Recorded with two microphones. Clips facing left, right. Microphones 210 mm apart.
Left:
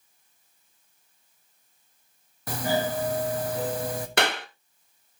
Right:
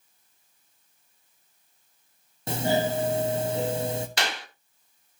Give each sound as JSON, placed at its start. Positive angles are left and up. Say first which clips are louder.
{"t": 2.5, "sound": "a doorbell", "louder": "right 2 dB", "side_deg": -25, "distance_m": 1.3}
{"t": 4.2, "sound": "a clap", "louder": "left 6 dB", "side_deg": 55, "distance_m": 1.3}